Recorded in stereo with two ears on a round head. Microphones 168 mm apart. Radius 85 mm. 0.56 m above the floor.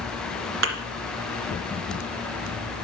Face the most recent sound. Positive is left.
turn(degrees=-80)